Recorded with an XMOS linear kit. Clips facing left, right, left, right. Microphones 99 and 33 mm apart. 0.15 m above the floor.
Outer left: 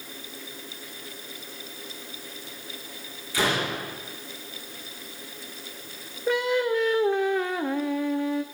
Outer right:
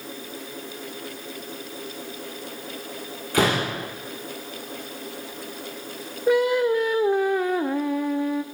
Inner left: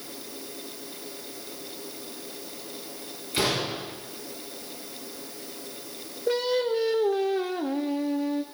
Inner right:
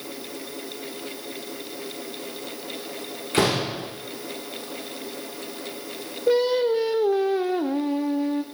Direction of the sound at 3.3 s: 50° right (ahead or behind).